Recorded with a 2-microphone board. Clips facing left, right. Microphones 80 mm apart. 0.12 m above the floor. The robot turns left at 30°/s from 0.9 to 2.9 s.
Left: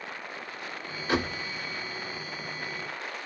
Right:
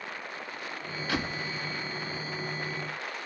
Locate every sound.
1.1 s a door slam: 20° left (ahead or behind), 1.1 m; by 1.4 s 25° left (ahead or behind), 1.1 m